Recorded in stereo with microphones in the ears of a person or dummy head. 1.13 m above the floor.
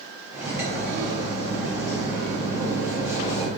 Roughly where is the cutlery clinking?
Centre.